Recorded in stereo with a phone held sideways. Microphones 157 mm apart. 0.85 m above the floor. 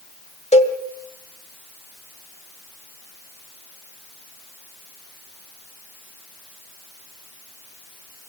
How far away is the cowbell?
About 1.7 m.